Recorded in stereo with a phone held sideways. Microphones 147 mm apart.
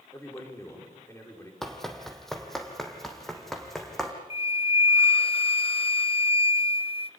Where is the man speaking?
20° left (ahead or behind), 5 m.